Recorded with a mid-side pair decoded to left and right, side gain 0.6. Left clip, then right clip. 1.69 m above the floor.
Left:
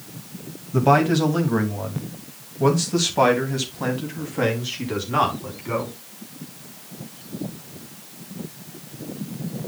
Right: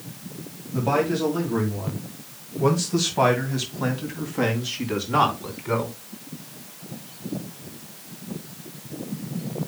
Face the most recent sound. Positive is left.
turn(degrees=-10)